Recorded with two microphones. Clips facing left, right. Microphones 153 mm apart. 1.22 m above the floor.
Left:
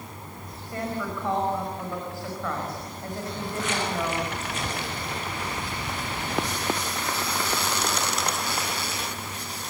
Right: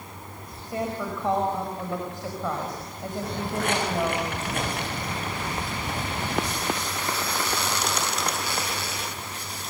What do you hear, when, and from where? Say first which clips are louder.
0.7 s a woman speaking: right 2 dB; 20° right (ahead or behind), 5 m
3.2 s footsteps: right 3 dB; 55° right (ahead or behind), 6 m